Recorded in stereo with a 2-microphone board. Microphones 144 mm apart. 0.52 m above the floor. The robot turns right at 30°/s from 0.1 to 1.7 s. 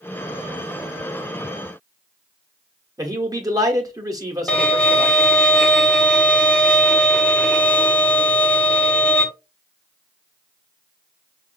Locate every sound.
3.0 s a man speaking: 25° right (ahead or behind), 1.0 m
4.5 s a violin: 10° left (ahead or behind), 0.9 m